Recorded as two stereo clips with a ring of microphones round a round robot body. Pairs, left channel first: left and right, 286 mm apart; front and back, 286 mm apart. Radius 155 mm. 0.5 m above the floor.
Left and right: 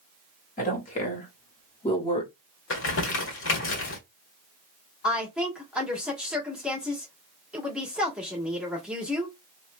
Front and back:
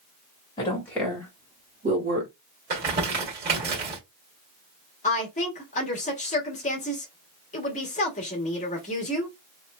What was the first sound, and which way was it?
A woman speaking, 60° left.